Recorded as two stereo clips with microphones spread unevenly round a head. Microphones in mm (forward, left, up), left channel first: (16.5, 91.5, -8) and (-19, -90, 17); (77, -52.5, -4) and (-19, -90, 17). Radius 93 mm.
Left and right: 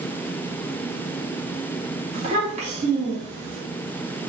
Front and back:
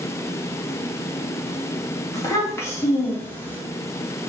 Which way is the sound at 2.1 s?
40° right.